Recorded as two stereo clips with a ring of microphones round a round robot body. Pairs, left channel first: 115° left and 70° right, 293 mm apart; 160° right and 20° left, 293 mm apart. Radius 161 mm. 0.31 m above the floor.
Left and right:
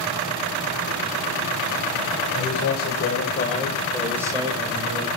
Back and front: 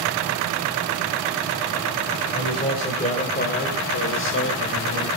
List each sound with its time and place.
2.3 s a man speaking: 125° left, 2.5 m; by 5.1 s 115° right, 2.5 m